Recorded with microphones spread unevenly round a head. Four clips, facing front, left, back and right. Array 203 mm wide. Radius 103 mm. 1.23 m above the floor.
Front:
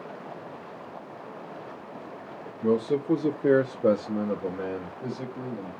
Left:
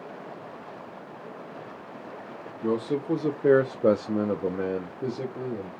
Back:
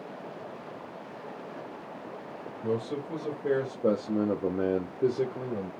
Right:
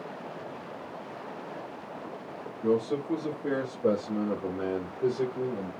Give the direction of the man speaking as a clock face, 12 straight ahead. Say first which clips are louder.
Even, front 7 dB; 11 o'clock.